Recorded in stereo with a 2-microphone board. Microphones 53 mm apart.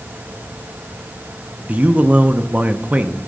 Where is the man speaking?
30° right (ahead or behind), 0.6 m.